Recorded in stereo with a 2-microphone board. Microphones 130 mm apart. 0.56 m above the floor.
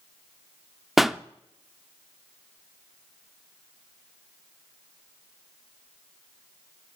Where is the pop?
Centre (ahead or behind), 0.5 m.